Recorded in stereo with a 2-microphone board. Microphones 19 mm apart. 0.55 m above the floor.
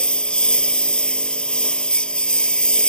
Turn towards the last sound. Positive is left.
turn(degrees=65)  # may be behind; listen again after turning